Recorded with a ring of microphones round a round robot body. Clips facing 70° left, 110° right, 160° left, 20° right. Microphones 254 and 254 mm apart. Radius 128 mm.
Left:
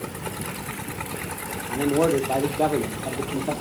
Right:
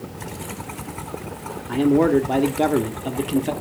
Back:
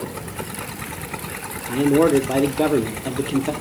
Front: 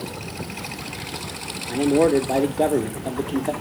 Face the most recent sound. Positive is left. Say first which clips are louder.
# right 5 dB, back 2 dB
turn(degrees=-140)